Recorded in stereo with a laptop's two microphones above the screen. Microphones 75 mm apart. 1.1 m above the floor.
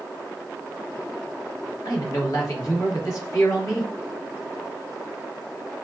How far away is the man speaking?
About 1.0 m.